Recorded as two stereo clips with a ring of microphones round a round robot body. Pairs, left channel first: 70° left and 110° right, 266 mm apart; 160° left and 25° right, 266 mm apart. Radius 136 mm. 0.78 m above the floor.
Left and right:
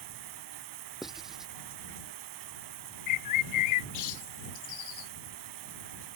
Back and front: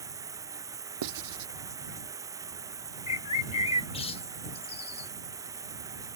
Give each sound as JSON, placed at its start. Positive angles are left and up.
{"t": 0.0, "sound": "running water", "azimuth_deg": -100}
{"t": 1.0, "sound": "writing", "azimuth_deg": -25}
{"t": 3.1, "sound": "a bird", "azimuth_deg": 85}